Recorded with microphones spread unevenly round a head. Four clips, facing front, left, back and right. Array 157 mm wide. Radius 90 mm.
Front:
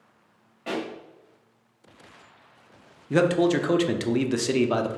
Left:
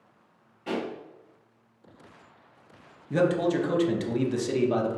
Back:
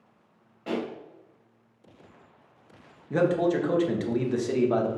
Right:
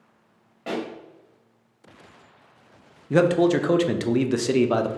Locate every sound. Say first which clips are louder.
0.7 s a pop: right 2 dB, even; 80° right, 1.8 m
3.1 s a man speaking: right 5 dB, front 3 dB; 35° right, 0.6 m